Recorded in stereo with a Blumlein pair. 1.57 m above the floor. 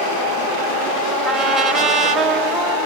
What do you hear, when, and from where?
1.2 s a trumpet: 20° right, 7 m